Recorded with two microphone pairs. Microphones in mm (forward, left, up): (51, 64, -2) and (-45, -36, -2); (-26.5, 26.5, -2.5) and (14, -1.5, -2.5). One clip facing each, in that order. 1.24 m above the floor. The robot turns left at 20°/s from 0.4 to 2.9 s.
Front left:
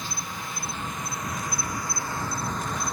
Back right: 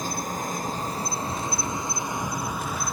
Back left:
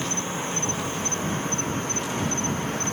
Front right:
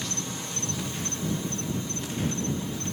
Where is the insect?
170° right; by 2.9 s 140° left.